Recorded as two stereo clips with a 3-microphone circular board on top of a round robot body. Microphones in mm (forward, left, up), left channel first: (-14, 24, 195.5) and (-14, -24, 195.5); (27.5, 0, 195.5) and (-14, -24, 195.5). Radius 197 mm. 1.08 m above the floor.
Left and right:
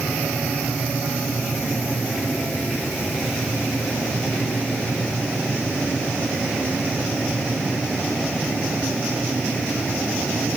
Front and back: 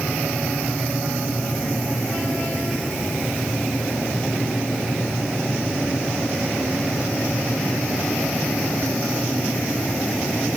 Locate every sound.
Only background noise.